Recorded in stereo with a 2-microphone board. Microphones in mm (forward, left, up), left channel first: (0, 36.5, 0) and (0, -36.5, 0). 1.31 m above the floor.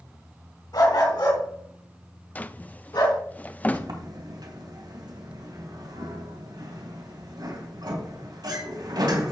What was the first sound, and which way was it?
A dog barking, 70° left (ahead or behind).